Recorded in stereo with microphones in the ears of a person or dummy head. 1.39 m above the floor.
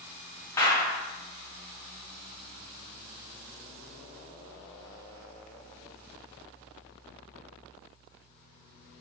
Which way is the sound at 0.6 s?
20° left (ahead or behind).